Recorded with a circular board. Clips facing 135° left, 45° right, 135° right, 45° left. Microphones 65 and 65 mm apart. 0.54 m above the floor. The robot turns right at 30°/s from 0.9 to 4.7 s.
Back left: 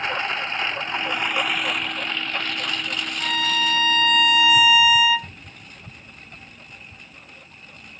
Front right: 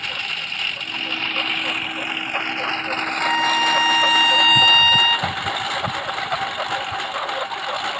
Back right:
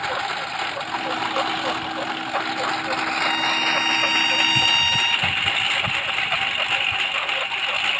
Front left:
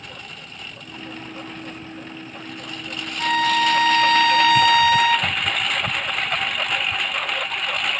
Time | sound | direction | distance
0.0 | a lawn mower | 160° right | ?
3.2 | a violin | 10° left | ?